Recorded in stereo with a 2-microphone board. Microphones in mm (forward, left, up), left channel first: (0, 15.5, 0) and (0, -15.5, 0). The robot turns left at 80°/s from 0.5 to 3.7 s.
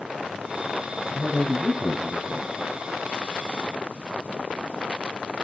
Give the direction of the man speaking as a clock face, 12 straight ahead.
6 o'clock.